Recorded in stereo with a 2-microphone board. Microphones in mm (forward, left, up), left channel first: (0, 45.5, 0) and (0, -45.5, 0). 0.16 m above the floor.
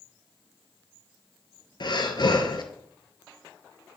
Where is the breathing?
55° left (ahead or behind), 0.9 m.